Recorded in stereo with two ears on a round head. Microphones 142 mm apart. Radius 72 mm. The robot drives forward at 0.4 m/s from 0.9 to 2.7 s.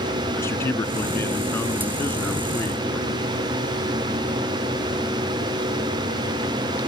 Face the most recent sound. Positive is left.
turn(degrees=15)  # may be behind; listen again after turning